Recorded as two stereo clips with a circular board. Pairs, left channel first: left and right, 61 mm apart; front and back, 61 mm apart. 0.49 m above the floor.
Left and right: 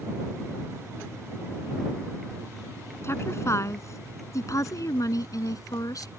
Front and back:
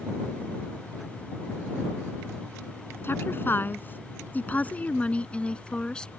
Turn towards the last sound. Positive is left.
turn(degrees=75)